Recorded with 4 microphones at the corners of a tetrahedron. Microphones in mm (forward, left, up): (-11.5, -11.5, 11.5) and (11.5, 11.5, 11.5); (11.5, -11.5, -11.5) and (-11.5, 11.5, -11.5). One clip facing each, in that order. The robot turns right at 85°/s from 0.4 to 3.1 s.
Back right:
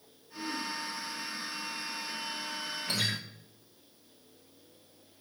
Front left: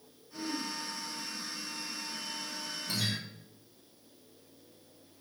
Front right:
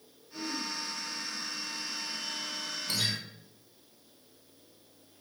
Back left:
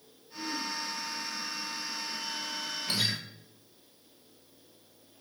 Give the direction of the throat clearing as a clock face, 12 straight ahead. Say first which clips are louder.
Back right 1 dB, back left 1 dB; 12 o'clock.